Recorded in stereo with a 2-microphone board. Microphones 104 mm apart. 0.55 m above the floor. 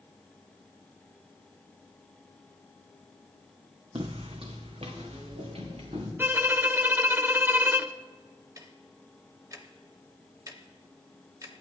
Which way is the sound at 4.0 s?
55° right (ahead or behind).